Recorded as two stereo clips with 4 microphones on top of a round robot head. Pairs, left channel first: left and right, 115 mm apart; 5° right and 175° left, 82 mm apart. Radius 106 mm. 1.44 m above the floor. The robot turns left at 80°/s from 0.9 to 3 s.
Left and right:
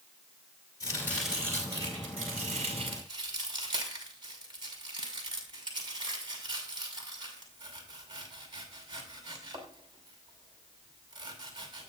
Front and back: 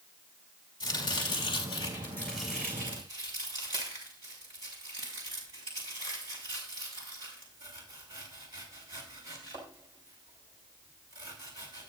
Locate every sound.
0.8 s chopping: 30° left, 6 m; by 11.9 s 140° right, 6 m